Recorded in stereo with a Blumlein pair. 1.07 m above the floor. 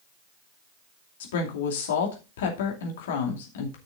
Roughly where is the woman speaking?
Ahead left.